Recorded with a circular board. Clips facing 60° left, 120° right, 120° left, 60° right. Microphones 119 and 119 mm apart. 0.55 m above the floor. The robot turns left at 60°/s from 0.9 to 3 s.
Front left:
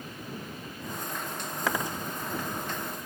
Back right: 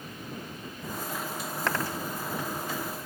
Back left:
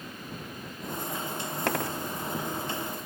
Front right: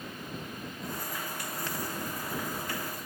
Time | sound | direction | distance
1.7 | a dropped coin | 145° left | ?